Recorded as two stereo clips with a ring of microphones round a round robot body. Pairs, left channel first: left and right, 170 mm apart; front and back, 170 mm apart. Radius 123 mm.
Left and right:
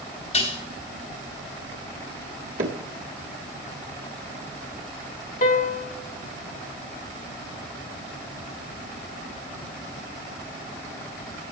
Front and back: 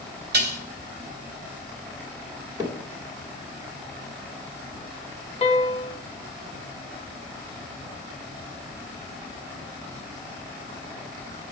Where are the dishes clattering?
160° left, 2 m.